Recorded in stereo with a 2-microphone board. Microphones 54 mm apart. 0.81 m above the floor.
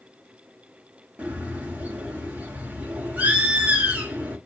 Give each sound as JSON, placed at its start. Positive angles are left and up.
{"t": 1.2, "sound": "a bird", "side_deg": -25, "distance_m": 0.7}